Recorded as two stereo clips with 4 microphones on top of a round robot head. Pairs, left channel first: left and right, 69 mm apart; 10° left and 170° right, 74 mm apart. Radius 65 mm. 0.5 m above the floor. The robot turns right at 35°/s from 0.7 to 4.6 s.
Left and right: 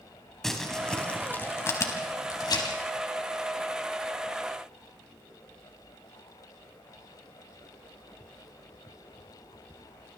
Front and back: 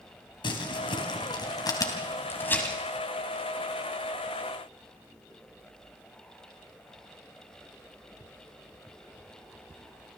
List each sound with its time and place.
0.4 s crumpling: 5° left, 3.5 m; by 2.8 s 80° left, 3.5 m